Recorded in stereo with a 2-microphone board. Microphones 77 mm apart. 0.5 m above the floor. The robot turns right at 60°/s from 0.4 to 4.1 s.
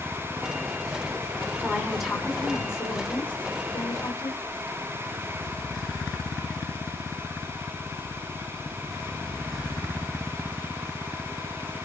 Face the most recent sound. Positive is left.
turn(degrees=125)